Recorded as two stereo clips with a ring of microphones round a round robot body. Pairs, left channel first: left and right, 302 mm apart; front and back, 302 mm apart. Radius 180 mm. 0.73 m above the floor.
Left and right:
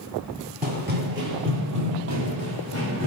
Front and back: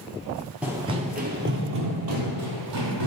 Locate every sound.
0.6 s running footsteps: 100° right, 0.7 m; by 3.1 s 150° right, 1.7 m